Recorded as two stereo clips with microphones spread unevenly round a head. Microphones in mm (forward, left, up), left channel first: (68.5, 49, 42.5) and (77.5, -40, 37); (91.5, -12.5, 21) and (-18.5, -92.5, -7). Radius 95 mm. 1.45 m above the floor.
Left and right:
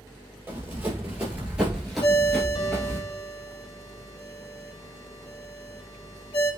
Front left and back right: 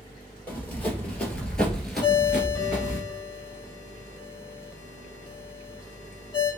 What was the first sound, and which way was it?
Running footsteps, 25° right.